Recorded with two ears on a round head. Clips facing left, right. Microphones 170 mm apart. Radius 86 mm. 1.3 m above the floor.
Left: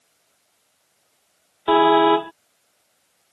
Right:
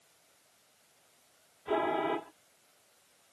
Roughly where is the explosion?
I don't hear an explosion.